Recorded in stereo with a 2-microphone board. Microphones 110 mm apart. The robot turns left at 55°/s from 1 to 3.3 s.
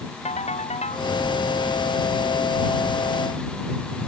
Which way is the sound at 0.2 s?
80° left.